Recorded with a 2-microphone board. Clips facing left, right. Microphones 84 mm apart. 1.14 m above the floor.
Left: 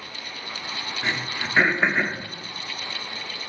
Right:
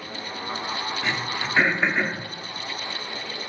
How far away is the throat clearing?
About 0.7 m.